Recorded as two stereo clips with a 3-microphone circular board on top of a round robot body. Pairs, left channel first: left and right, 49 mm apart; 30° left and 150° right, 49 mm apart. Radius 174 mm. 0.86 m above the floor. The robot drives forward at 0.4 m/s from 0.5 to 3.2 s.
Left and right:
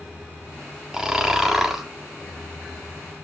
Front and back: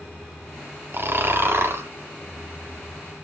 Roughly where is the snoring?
Behind.